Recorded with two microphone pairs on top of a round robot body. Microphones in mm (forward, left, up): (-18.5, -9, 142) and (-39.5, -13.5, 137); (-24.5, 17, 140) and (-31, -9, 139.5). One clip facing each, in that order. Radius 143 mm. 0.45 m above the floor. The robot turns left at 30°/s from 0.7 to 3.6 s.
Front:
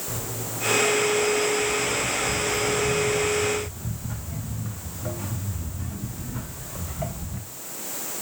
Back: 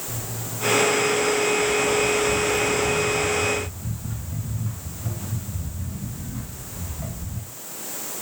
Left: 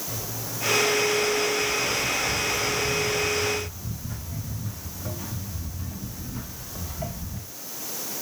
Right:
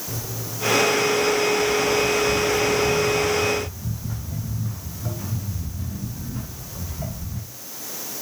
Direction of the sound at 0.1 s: 10° right.